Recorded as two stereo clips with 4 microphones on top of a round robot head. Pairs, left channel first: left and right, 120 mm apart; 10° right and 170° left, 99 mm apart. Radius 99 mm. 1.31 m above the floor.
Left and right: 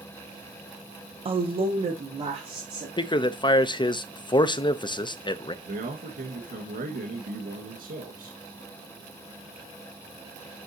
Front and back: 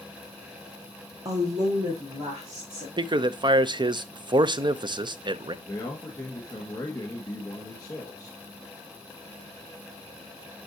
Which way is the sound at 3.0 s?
135° left.